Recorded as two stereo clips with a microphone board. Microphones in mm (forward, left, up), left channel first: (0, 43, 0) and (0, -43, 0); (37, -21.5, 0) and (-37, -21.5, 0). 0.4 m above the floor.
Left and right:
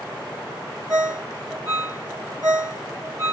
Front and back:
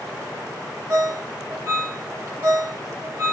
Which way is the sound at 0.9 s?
135° right.